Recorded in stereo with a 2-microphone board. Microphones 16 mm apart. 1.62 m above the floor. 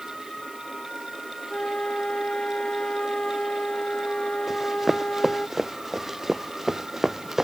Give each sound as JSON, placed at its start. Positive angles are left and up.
{"t": 1.5, "sound": "a flute", "side_deg": 90}
{"t": 4.5, "sound": "running footsteps", "side_deg": -15}